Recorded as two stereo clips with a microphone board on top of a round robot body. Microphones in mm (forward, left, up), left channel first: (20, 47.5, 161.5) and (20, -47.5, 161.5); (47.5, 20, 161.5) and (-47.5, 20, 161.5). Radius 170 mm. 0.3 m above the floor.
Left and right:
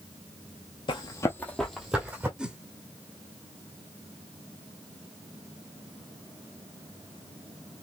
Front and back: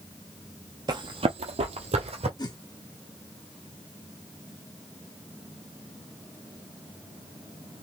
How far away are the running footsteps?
About 0.9 m.